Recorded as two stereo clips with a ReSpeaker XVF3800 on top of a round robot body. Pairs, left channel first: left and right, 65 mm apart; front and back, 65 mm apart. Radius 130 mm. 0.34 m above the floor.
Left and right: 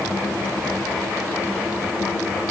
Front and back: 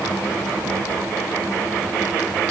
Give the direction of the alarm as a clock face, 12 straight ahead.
No alarm in this recording.